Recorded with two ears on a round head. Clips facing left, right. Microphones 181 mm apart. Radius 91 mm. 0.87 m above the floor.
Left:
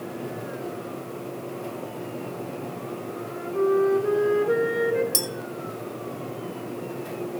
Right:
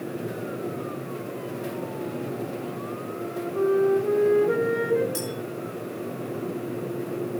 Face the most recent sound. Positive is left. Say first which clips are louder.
# even
turn(degrees=55)  # may be behind; listen again after turning